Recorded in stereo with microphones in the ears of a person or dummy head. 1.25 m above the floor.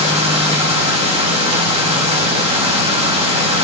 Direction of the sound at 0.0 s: 25° right (ahead or behind).